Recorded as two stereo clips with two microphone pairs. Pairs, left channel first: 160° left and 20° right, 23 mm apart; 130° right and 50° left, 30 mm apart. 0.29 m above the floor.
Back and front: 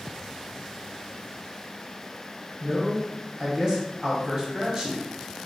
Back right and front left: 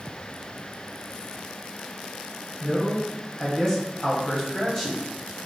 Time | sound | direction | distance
2.6 | a man speaking | 70° right | 1.9 m